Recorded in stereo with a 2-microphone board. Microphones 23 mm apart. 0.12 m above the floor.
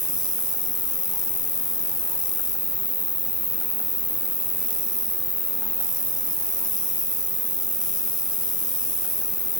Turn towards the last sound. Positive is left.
turn(degrees=10)  # may be behind; listen again after turning